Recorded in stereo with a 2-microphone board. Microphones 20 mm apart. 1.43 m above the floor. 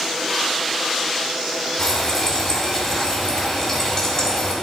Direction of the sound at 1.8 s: 35° left (ahead or behind).